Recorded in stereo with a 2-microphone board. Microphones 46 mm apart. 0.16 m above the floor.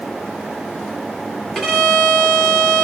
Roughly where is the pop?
No pop in this recording.